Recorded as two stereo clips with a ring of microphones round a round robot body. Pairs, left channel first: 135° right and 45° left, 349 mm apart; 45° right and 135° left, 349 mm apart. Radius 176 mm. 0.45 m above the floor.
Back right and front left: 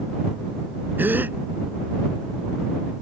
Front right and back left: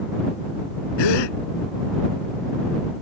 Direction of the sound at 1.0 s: 40° right.